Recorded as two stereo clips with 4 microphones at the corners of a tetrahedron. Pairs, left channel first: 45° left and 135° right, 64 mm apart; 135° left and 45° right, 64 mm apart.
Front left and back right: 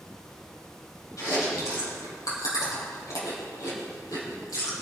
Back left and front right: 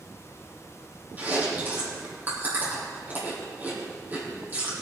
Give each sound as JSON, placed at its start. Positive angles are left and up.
{"t": 1.2, "sound": "chewing", "azimuth_deg": 15, "distance_m": 4.5}